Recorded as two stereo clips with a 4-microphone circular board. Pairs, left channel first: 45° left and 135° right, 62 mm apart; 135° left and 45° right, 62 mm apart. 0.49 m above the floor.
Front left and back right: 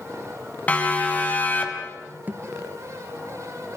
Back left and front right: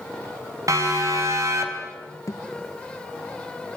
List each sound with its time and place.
0.7 s a siren: 20° right, 4.5 m; by 1.9 s 10° right, 3 m
2.3 s a thud: 165° left, 1.2 m